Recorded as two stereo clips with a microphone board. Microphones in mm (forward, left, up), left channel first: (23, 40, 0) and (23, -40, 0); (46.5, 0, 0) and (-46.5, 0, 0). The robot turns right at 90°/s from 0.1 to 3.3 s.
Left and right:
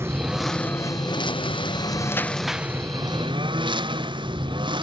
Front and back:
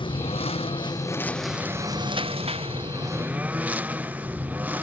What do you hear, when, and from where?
0.0 s a lawn mower: 30° right; by 4.8 s 105° right